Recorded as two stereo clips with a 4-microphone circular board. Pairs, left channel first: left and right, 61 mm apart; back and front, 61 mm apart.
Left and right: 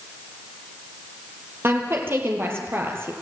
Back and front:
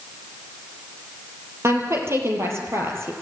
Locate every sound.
1.6 s a woman speaking: 40° right, 5.5 m